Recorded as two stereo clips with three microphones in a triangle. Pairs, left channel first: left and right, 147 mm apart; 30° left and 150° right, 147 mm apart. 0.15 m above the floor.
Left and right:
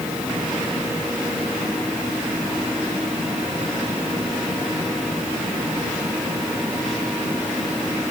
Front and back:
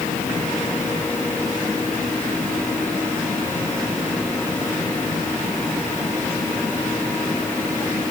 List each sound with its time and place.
Only background noise.